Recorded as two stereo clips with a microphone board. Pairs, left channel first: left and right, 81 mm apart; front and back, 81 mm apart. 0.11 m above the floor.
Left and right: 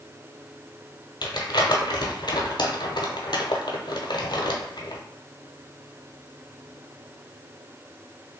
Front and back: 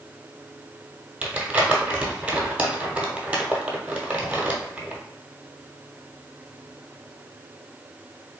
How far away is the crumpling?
About 0.7 m.